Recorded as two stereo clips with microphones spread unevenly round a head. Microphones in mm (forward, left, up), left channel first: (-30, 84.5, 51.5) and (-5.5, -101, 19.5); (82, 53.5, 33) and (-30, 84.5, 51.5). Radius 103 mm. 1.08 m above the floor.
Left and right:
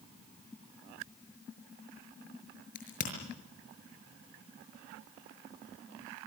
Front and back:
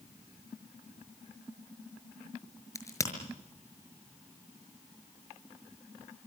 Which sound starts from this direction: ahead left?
A crack, at 2.8 s.